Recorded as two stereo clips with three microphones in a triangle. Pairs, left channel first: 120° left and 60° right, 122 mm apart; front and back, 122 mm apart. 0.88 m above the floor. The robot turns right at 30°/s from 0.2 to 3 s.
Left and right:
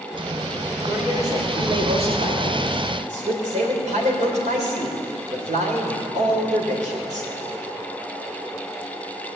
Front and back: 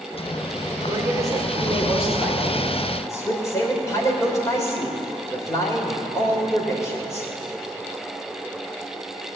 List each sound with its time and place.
0.9 s a man speaking: 130° right, 3 m; by 7.3 s 65° right, 3 m